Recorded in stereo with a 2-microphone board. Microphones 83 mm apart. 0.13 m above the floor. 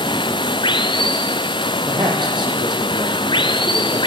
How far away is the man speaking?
About 6.5 m.